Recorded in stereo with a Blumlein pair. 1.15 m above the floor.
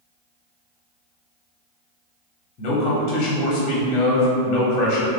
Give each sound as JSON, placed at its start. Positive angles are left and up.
{"t": 2.6, "sound": "a man speaking", "azimuth_deg": 30, "distance_m": 0.9}